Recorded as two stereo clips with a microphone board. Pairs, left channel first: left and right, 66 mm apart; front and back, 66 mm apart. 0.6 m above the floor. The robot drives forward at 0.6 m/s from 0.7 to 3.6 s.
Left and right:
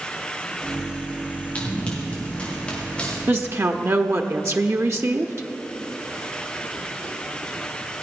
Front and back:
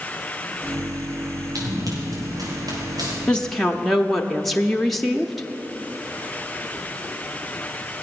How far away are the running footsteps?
About 5 m.